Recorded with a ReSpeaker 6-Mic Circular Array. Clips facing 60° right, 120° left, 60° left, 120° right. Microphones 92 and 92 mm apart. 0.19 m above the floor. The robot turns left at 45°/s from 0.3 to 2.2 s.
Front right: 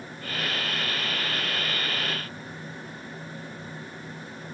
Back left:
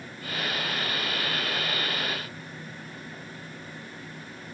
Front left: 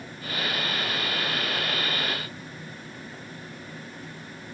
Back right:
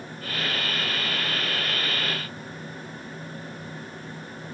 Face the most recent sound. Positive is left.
No sound to turn to.